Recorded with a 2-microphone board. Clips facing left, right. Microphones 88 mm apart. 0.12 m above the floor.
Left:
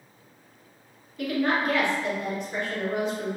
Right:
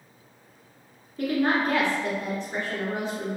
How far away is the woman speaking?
About 1.2 m.